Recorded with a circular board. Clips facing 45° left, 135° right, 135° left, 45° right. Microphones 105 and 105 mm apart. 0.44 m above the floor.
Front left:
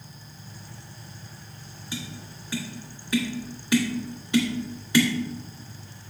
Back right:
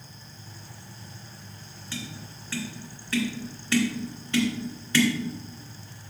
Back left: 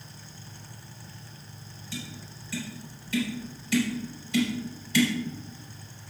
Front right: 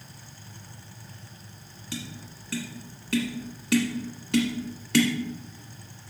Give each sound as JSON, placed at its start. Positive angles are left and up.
{"t": 1.9, "sound": "tapping", "azimuth_deg": -30, "distance_m": 1.7}